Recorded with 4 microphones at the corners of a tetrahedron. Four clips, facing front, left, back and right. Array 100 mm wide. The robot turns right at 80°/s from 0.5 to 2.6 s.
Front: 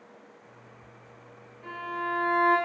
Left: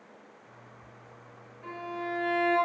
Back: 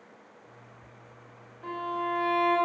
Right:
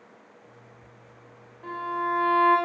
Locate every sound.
1.6 s a violin: 135° right, 1.5 m; by 2.6 s 60° right, 1.5 m